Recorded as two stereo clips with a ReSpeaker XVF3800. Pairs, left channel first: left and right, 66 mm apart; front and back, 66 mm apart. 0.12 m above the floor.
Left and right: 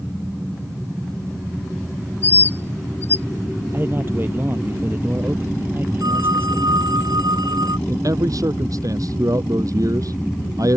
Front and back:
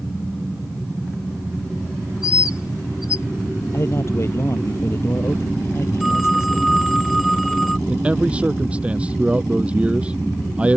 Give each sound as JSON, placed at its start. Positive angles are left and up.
{"t": 2.2, "sound": "a bird", "azimuth_deg": 30}
{"t": 3.7, "sound": "a man speaking", "azimuth_deg": -40}
{"t": 6.0, "sound": "a phone ringing", "azimuth_deg": -90}
{"t": 7.9, "sound": "a man speaking", "azimuth_deg": -110}